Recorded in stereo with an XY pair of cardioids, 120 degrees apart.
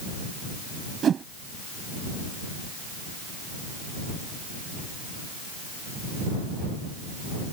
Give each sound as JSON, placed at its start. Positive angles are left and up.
{"t": 1.0, "sound": "a whoosh", "azimuth_deg": -45}